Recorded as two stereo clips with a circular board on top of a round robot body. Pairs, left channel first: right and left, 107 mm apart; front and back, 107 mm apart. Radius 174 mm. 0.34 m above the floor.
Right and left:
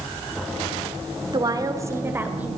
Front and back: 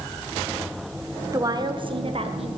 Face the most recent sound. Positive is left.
turn(degrees=165)